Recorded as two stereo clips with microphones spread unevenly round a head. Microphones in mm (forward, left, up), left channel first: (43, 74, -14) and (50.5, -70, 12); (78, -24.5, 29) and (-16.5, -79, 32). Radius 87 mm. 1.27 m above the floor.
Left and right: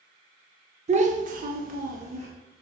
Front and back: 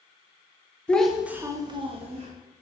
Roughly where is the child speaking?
Ahead right.